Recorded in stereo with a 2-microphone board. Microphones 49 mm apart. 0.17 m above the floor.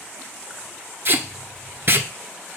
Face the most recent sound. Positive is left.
turn(degrees=-50)  # may be behind; listen again after turning